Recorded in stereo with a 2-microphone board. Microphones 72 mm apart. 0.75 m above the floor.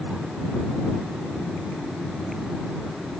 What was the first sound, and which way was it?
Only background noise.